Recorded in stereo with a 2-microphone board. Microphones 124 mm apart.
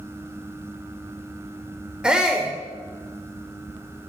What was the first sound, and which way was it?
A shout, 5° right (ahead or behind).